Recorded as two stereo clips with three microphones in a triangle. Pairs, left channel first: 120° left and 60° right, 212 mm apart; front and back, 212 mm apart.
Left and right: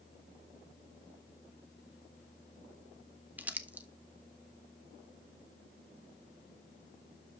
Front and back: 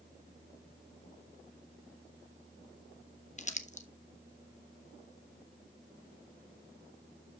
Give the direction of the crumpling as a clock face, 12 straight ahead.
11 o'clock.